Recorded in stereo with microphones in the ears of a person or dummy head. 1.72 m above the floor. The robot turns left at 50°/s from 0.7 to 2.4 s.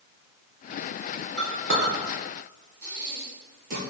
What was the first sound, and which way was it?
A clink, 75° right (ahead or behind).